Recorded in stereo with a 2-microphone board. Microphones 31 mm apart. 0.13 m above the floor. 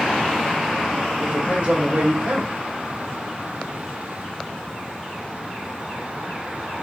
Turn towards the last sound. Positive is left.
turn(degrees=-45)  # may be behind; listen again after turning